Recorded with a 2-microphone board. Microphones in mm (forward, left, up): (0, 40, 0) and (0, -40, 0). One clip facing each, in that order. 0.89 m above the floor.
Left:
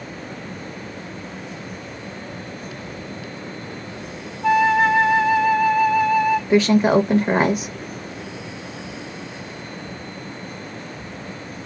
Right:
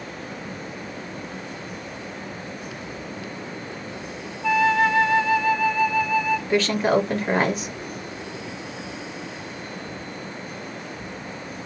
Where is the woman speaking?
10° left (ahead or behind), 0.6 m.